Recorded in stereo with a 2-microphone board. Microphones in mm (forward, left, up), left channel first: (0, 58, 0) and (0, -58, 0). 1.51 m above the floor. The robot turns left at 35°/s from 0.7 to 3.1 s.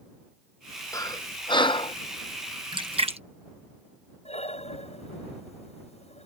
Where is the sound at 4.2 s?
65° left (ahead or behind).